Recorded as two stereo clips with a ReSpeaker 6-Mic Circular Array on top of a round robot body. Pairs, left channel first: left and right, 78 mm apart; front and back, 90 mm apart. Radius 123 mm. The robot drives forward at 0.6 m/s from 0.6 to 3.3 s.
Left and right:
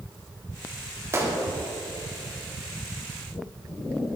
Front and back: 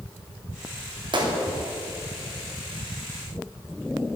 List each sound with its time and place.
1.1 s a gunshot: 150° right, 2.5 m